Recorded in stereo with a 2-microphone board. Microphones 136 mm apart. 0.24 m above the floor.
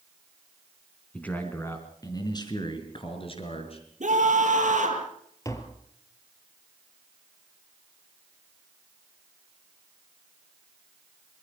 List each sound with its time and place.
1.1 s a man speaking: 10° left (ahead or behind), 2.5 m; by 3.9 s 45° left (ahead or behind), 4 m
4.0 s a scream: 65° right (ahead or behind), 7 m
5.5 s tapping: 25° left (ahead or behind), 2.5 m